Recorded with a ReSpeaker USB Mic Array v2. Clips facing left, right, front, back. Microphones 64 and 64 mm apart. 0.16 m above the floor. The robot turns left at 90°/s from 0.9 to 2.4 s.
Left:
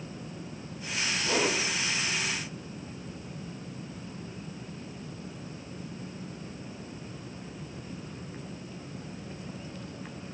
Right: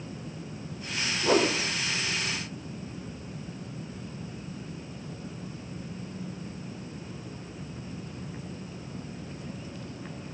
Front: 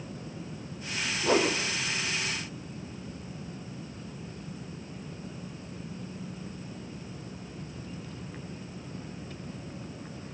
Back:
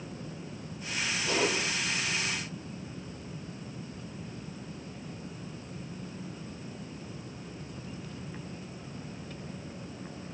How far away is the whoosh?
About 6.5 m.